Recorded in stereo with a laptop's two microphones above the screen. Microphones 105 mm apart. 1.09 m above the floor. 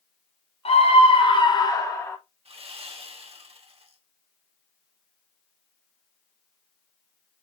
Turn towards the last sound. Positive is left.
turn(degrees=-65)  # may be behind; listen again after turning